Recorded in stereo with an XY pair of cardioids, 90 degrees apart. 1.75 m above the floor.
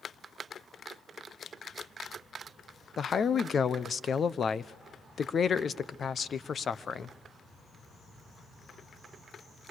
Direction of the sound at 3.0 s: 50° left.